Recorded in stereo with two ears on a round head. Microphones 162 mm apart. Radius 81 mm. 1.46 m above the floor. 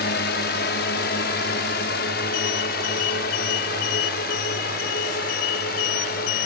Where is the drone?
60° left (ahead or behind); by 6.5 s 55° left (ahead or behind).